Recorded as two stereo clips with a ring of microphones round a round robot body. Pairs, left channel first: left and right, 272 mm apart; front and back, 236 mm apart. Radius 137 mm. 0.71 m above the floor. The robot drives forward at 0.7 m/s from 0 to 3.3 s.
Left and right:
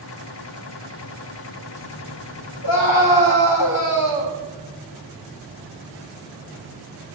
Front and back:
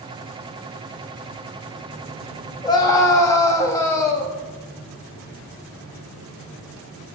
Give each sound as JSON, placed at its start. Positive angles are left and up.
{"t": 2.6, "sound": "a scream", "azimuth_deg": 70, "distance_m": 5.5}